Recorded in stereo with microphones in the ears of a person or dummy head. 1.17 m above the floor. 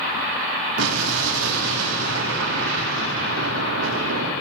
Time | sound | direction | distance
0.8 | an explosion | 75° right (ahead or behind) | 3 m